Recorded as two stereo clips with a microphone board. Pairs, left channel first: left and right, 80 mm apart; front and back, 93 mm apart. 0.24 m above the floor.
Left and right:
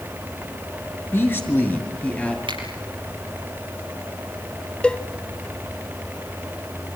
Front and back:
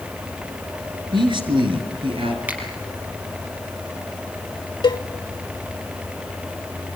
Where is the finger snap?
105° right, 4.5 m.